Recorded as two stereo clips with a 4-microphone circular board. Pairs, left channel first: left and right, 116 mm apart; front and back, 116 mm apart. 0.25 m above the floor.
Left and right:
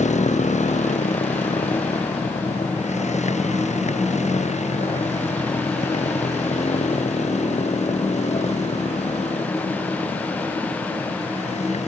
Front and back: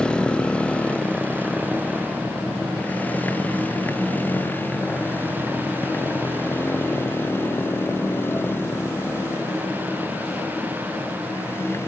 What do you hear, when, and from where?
0.0 s a motorcycle: 80° left; by 11.9 s 70° left